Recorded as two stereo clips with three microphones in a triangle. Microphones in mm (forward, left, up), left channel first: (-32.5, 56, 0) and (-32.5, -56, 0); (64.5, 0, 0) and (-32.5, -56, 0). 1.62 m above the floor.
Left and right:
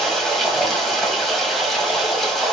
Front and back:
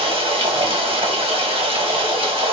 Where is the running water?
Straight behind, 1.6 m.